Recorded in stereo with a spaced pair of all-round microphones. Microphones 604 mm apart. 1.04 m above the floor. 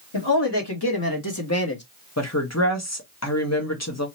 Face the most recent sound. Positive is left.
turn(degrees=25)  # may be behind; listen again after turning